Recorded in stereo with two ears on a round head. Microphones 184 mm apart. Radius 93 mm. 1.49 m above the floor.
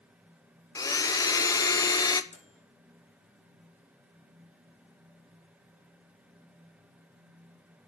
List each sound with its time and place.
0.8 s a blender: 20° left (ahead or behind), 0.8 m
2.3 s a microwave: 35° left (ahead or behind), 2 m